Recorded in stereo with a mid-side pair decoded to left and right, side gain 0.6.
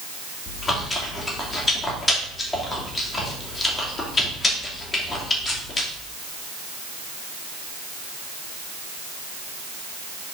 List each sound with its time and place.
0.5 s chewing: 20° left, 2 m